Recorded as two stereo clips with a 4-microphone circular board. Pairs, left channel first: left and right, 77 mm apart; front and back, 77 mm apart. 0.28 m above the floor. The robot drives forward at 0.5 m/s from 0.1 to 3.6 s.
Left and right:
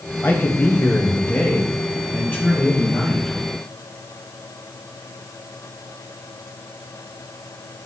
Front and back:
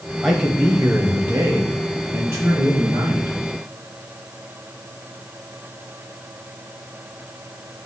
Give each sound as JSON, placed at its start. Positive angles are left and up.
{"t": 0.2, "sound": "a man speaking", "azimuth_deg": 95, "distance_m": 1.2}